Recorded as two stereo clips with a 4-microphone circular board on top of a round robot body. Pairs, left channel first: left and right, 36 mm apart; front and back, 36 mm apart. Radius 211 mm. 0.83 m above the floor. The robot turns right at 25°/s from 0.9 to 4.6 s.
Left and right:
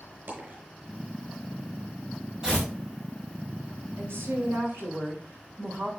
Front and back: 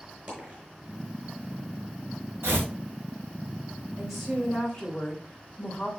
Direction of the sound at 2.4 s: 160° right.